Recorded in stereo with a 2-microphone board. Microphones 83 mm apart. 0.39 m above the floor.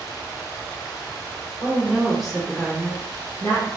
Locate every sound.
1.6 s a woman speaking: 15° right (ahead or behind), 1.0 m; by 3.7 s 35° left (ahead or behind), 1.2 m